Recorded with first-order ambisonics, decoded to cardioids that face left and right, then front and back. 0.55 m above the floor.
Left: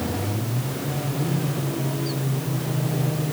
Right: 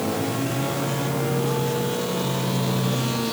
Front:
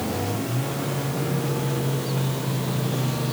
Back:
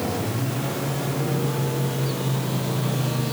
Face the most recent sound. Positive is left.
No sound to turn to.